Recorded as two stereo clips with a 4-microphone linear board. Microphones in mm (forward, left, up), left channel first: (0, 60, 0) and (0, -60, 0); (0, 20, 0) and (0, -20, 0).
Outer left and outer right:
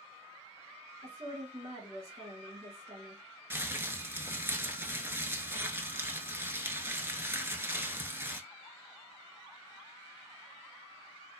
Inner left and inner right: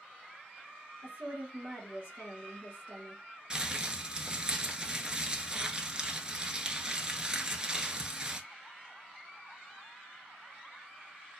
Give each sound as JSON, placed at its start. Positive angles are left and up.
{"t": 1.0, "sound": "a woman speaking", "side_deg": -30, "distance_m": 1.3}
{"t": 3.5, "sound": "crumpling", "side_deg": -20, "distance_m": 0.6}